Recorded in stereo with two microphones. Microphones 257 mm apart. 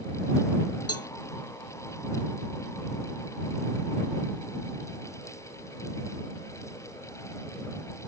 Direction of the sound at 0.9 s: 70° left (ahead or behind).